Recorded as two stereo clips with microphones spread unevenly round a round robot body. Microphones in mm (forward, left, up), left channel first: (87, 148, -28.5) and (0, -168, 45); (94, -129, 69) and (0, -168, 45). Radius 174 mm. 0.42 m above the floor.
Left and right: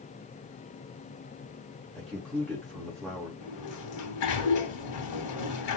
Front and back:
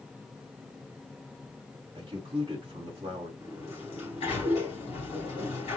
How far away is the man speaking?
About 3.5 m.